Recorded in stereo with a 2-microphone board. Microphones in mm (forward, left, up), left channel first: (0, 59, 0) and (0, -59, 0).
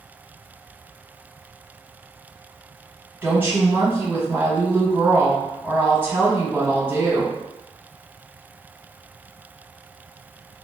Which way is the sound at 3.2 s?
20° right (ahead or behind).